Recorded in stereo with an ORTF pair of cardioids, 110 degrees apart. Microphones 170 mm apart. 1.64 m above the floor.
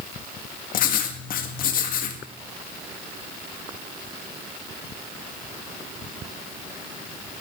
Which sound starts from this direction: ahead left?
Writing, at 0.7 s.